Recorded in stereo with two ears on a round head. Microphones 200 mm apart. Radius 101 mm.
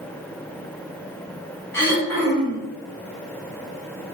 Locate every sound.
1.7 s throat clearing: 10° left (ahead or behind), 3 m